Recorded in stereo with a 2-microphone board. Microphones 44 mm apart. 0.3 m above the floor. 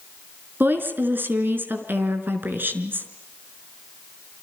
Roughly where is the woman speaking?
Right.